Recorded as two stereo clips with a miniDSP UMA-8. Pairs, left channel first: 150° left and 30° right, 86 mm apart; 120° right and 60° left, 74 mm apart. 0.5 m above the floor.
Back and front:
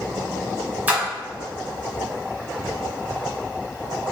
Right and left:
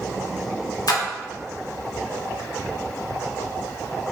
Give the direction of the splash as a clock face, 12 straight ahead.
3 o'clock.